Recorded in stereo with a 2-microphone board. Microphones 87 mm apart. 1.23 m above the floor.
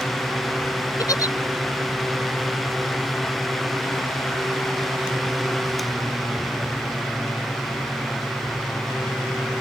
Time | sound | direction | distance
1.0 | a giggle | 45° left (ahead or behind) | ?